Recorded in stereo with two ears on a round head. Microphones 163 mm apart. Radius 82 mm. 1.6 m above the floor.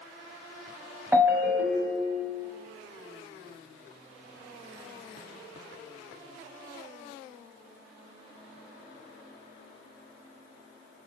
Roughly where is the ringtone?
Centre.